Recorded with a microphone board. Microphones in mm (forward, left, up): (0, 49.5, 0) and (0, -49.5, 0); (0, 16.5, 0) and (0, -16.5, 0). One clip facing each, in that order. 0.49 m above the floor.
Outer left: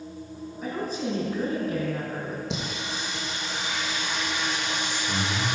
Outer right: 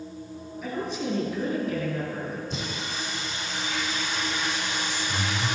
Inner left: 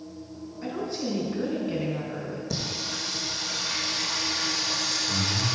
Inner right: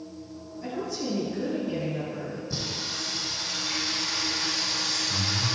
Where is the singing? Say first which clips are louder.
Outer left 1 dB, inner left 2 dB; 80° left, 3.5 m.